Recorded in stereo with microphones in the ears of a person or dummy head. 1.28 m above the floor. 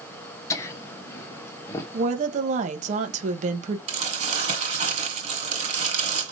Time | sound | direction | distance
0.5 | laughter | 15° left (ahead or behind) | 1.0 m
1.9 | a woman speaking | 45° right (ahead or behind) | 0.9 m
3.9 | crumpling | 40° right (ahead or behind) | 3 m